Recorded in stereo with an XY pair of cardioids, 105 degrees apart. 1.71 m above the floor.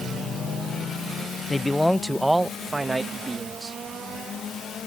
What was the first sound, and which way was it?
A man speaking, 15° left.